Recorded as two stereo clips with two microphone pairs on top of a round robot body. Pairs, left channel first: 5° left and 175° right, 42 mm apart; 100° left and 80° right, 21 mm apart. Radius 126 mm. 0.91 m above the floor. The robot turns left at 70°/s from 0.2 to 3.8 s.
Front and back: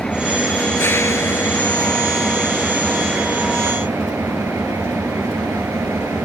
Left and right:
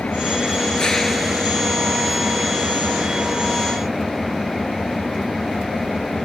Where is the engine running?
85° left; by 6.3 s 165° right.